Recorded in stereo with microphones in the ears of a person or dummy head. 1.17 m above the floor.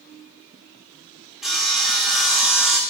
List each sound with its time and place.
1.4 s sawing: 5° right (ahead or behind), 1.2 m